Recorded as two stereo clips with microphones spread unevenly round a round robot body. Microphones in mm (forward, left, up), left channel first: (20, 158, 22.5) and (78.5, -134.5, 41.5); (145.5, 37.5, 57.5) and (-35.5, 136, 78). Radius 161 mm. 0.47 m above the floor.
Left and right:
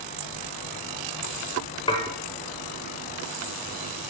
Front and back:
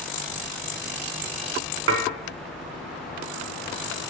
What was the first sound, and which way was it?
Dishes clattering, 175° left.